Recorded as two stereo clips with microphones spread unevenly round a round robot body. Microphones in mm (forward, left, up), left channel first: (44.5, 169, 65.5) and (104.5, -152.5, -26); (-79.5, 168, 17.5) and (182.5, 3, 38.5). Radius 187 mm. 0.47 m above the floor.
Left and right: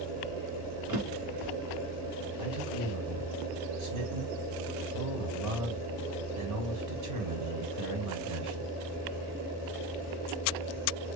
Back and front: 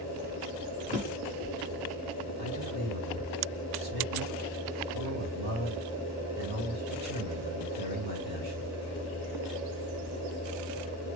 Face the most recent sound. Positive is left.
turn(degrees=-70)